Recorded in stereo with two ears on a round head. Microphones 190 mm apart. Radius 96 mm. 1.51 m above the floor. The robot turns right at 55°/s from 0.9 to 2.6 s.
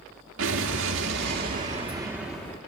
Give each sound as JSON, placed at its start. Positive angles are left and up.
{"t": 0.4, "sound": "an explosion", "azimuth_deg": -80, "distance_m": 1.8}